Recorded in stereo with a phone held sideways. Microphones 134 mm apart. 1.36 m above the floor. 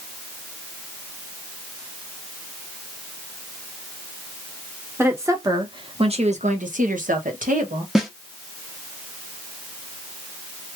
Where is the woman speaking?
20° right (ahead or behind), 1.2 m; by 7.8 s 70° right (ahead or behind), 1.2 m.